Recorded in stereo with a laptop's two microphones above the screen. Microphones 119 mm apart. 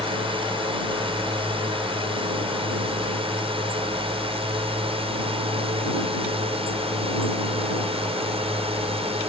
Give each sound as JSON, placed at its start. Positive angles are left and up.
{"t": 0.0, "sound": "a drone", "side_deg": -50}